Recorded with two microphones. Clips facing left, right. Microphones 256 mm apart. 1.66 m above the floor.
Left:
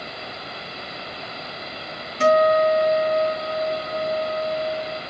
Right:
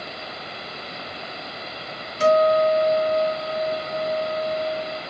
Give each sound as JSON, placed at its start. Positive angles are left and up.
{"t": 2.2, "sound": "a guitar", "side_deg": 0, "distance_m": 4.0}